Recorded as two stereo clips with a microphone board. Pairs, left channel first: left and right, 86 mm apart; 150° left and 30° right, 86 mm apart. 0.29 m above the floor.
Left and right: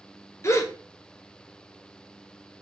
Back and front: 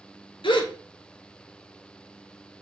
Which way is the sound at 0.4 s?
145° left.